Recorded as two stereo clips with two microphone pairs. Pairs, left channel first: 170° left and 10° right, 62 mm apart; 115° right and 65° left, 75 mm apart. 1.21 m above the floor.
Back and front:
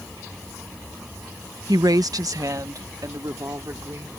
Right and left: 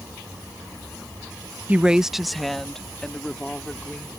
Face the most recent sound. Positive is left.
turn(degrees=-40)